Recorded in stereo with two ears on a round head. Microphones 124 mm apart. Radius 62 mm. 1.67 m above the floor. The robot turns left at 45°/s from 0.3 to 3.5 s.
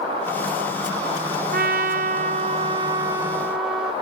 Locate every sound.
1.5 s a trumpet: 85° right, 0.9 m; by 3.9 s 175° right, 0.9 m